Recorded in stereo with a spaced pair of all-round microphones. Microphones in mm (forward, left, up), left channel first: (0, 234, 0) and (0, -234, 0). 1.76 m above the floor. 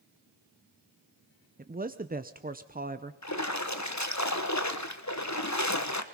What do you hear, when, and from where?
1.6 s a man speaking: 20° right (ahead or behind), 0.7 m
3.2 s a splash: 35° left (ahead or behind), 1.2 m